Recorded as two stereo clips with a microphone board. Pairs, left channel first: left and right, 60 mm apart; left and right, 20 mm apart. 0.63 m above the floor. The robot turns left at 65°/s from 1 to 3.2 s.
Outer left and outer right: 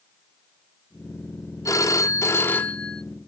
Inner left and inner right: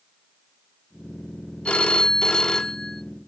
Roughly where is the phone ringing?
Left.